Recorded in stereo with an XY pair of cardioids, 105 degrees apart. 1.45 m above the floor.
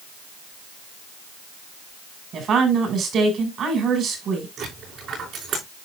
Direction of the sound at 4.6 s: 60° right.